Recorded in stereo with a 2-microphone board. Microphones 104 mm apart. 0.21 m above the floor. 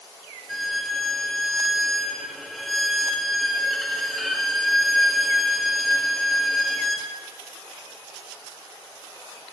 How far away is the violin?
About 1.7 m.